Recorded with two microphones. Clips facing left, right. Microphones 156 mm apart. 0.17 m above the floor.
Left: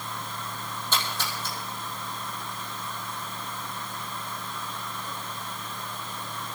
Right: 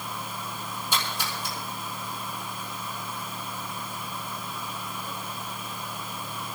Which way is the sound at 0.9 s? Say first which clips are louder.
Even; 10° right (ahead or behind).